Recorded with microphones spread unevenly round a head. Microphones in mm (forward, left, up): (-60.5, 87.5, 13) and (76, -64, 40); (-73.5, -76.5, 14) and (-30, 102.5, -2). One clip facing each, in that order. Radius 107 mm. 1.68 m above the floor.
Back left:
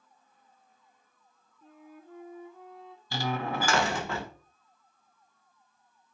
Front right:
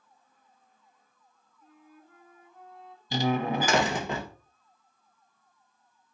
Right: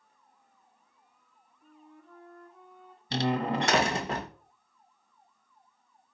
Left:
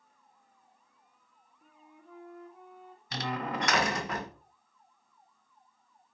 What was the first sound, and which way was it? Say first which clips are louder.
A flute: back left 5 dB, right 3 dB; 155° left.